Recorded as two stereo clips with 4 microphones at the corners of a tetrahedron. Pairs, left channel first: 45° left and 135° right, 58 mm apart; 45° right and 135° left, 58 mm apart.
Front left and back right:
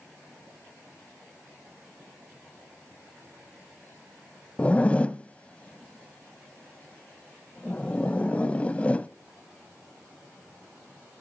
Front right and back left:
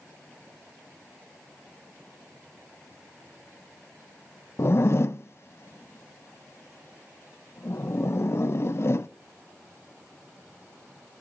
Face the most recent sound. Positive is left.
turn(degrees=-20)